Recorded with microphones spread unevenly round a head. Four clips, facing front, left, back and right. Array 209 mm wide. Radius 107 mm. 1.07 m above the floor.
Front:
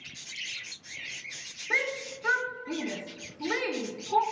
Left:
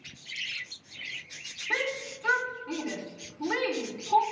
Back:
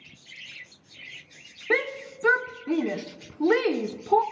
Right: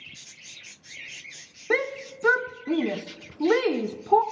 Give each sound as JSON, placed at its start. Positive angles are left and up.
{"t": 1.7, "sound": "a shout", "azimuth_deg": -135, "distance_m": 0.5}